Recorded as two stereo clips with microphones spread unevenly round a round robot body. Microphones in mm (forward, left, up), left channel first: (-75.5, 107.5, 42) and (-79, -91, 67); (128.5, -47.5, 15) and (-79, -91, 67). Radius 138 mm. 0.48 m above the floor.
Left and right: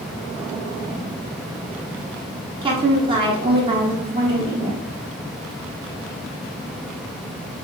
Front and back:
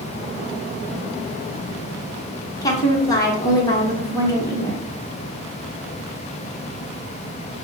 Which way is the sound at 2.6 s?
30° right.